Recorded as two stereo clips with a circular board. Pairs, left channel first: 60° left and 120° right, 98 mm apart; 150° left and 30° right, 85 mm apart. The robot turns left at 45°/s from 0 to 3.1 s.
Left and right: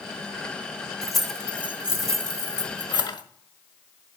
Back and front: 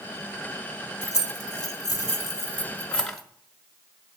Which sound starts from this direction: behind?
Keys jangling, at 1.0 s.